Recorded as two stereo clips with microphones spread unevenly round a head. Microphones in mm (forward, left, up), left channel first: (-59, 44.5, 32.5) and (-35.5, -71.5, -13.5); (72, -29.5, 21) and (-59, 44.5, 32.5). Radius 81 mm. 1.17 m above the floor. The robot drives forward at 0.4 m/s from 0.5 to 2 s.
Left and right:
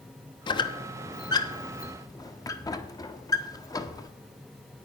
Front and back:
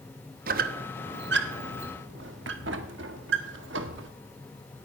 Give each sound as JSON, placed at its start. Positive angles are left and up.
{"t": 0.5, "sound": "a squeak", "azimuth_deg": 130, "distance_m": 0.8}